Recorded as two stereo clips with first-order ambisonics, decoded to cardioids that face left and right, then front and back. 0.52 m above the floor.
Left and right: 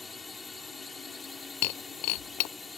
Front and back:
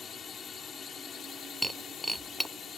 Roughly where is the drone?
Ahead left.